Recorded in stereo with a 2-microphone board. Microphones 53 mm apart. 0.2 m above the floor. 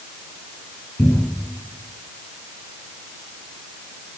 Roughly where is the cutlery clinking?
No cutlery clinking in this recording.